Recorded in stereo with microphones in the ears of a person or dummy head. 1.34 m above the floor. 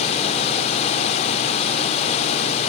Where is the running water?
35° left (ahead or behind), 1.8 m.